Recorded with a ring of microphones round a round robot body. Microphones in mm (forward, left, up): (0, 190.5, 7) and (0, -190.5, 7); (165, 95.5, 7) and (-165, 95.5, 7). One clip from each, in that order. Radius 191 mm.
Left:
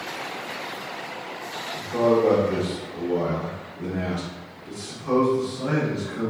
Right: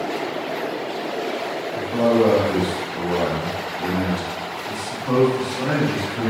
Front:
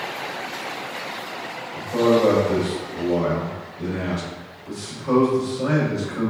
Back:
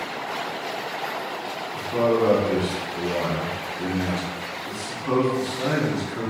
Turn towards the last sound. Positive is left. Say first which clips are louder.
# right 2 dB, front 3 dB
turn(degrees=-155)